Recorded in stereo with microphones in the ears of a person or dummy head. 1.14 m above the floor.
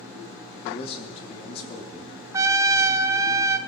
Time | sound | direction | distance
0.6 | a man speaking | 35° left (ahead or behind) | 3 m
2.3 | a trumpet | 15° right (ahead or behind) | 0.5 m